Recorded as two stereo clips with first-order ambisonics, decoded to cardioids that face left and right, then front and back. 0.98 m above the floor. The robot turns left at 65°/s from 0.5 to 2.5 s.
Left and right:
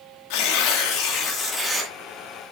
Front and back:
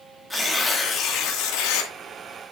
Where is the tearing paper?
85° left, 2.5 m; by 1.9 s 5° right, 2.5 m.